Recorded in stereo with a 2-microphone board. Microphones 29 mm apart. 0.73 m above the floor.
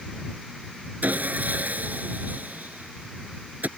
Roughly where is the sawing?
Right.